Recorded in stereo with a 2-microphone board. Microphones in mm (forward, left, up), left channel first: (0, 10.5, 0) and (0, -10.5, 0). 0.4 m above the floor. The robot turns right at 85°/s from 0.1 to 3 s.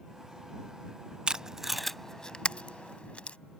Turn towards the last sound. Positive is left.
turn(degrees=85)